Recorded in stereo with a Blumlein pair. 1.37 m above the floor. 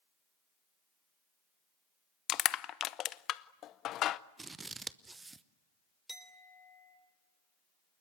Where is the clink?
5° right, 3 m.